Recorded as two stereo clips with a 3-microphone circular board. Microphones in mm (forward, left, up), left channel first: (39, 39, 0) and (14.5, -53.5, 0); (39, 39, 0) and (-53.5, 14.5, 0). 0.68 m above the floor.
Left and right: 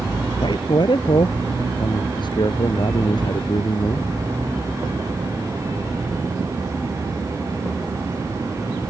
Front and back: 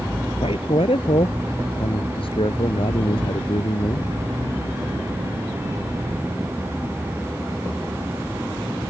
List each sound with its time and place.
0.4 s a man speaking: 35° left